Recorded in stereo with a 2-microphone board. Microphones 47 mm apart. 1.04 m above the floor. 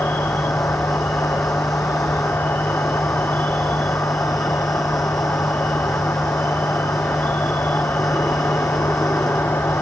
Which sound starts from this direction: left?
An insect, at 0.0 s.